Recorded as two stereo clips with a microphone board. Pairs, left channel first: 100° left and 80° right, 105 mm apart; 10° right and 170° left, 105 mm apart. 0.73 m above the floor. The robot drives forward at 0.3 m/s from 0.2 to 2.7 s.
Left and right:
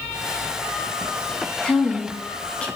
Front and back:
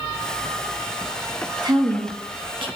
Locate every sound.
1.6 s a woman speaking: 175° left, 1.4 m